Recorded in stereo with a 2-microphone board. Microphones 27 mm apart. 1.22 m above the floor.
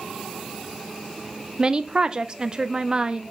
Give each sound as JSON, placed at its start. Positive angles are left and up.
{"t": 1.6, "sound": "a woman speaking", "side_deg": -30, "distance_m": 0.5}